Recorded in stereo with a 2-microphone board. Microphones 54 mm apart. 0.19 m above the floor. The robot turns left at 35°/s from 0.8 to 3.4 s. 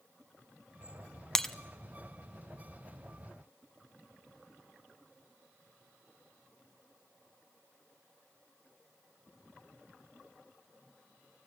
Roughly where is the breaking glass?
Centre.